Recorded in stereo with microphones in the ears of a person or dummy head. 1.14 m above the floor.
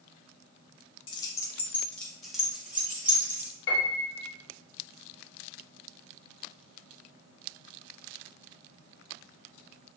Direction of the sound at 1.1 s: 30° left (ahead or behind).